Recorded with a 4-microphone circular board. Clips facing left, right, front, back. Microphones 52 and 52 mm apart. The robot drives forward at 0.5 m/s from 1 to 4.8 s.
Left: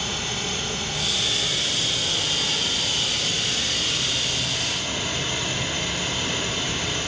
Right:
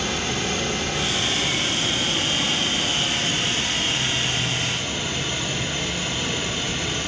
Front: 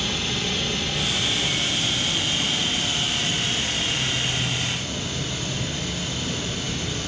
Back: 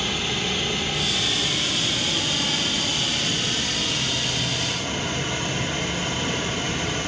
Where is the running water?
90° right, 1.4 m; by 7.1 s 145° right, 2.5 m.